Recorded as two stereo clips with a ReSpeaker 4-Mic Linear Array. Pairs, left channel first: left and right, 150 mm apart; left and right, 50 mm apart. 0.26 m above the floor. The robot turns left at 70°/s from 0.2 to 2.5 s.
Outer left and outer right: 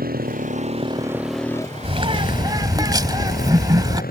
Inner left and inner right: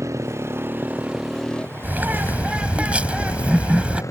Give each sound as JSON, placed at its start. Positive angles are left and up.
{"t": 0.0, "sound": "a motorcycle", "azimuth_deg": -100}
{"t": 1.8, "sound": "a bird", "azimuth_deg": -90}